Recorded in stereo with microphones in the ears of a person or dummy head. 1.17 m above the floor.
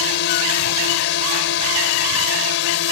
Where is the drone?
65° left (ahead or behind); by 2.9 s 70° left (ahead or behind).